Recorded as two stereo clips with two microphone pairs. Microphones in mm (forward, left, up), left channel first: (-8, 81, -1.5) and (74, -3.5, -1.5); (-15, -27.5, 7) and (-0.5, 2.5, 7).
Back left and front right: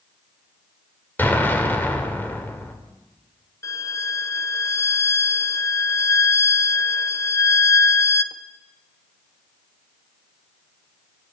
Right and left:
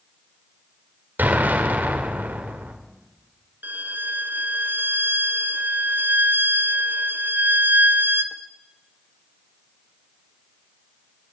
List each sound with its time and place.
1.2 s an explosion: 60° left, 3 m
3.6 s a violin: 70° left, 1.0 m